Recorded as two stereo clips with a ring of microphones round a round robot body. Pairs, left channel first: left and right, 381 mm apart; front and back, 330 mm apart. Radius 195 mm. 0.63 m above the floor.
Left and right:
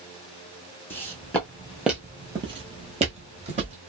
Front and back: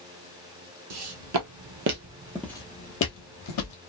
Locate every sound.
0.9 s footsteps: 175° left, 1.2 m; by 3.8 s 20° right, 1.1 m